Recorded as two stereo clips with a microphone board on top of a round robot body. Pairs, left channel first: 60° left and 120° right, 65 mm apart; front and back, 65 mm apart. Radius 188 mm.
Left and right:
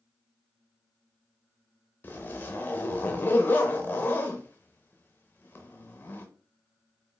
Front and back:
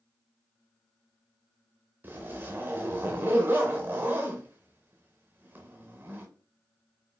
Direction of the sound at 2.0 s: 120° left.